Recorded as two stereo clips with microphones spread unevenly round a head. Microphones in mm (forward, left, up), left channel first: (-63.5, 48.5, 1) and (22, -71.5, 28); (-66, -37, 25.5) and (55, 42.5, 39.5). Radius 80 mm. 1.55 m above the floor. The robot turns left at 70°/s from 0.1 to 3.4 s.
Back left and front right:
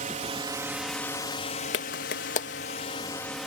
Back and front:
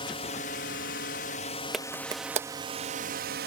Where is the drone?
90° right; by 3.5 s 40° left.